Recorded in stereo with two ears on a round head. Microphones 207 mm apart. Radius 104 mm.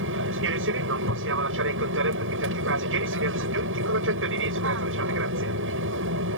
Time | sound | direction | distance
0.0 | an aircraft | 60° right (ahead or behind) | ?